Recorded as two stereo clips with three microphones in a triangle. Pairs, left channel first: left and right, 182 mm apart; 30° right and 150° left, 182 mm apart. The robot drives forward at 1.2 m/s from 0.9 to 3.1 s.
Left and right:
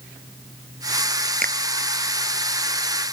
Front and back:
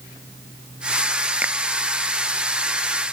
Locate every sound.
1.4 s a finger snap: 130° right